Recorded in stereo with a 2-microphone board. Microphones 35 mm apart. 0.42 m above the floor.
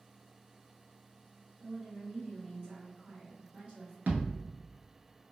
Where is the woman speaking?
40° right (ahead or behind), 1.6 m.